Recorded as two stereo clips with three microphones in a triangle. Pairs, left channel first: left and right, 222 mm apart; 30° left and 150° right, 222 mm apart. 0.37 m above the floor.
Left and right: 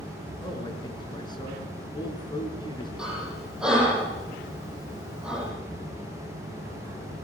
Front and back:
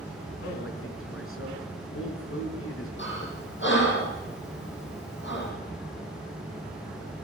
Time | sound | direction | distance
0.4 | a man speaking | 20° left | 5 m
3.0 | breathing | 5° right | 7.5 m